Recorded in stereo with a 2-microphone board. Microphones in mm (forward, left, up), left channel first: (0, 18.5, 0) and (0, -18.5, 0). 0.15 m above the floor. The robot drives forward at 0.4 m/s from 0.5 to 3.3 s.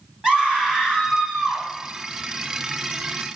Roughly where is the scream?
Right.